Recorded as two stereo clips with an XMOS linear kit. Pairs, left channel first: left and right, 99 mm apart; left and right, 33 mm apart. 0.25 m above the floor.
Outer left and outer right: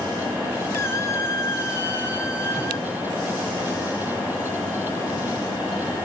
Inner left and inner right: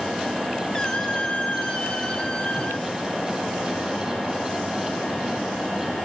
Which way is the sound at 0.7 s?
25° left (ahead or behind).